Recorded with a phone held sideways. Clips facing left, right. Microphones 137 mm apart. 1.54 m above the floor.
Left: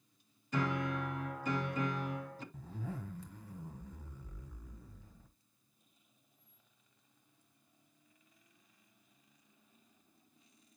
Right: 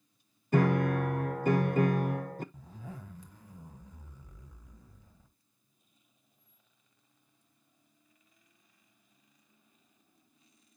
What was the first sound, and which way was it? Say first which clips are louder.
A piano: right 9 dB; 55° right (ahead or behind).